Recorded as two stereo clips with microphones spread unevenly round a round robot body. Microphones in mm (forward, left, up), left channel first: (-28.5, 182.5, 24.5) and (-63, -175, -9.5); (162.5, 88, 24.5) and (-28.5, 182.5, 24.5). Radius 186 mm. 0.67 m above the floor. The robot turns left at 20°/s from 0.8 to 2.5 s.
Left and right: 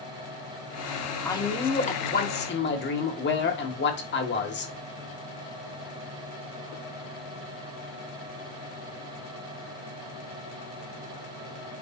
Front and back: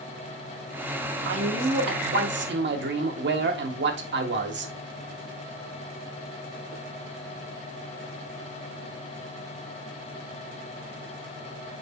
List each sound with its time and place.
1.2 s a man speaking: 170° left, 1.8 m; by 4.7 s 145° left, 1.8 m